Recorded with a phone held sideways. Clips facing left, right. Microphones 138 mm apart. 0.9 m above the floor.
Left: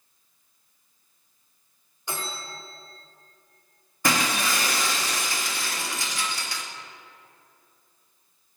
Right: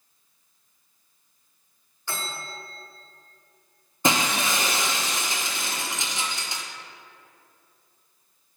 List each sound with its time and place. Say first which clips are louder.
2.1 s a bell: even; 20° left (ahead or behind), 1.0 m
4.0 s breaking glass: right 1 dB; 20° right (ahead or behind), 0.6 m